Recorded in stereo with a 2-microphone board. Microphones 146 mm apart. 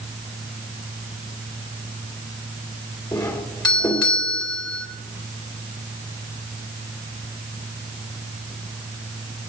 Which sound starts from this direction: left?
A doorbell, at 3.1 s.